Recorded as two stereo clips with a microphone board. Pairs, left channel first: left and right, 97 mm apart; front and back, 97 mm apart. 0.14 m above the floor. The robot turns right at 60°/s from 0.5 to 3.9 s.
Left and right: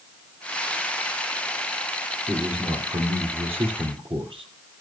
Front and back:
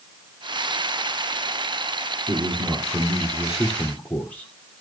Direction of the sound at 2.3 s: 170° right.